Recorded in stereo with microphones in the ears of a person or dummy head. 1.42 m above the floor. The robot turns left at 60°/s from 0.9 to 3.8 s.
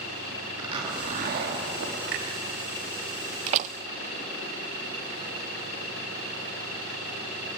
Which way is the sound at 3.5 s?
35° right (ahead or behind).